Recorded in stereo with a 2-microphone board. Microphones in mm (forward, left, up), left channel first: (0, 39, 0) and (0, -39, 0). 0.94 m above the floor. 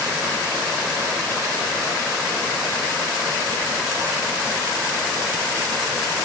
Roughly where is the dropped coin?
No dropped coin in this recording.